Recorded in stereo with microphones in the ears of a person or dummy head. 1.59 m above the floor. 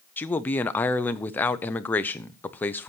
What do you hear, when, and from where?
0.2 s a man speaking: 10° left (ahead or behind), 0.8 m